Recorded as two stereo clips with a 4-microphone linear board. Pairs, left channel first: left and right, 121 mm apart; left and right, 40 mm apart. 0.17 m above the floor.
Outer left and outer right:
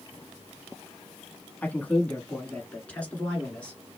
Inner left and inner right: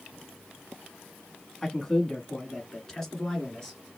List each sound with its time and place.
1.6 s a man speaking: 10° left (ahead or behind), 1.2 m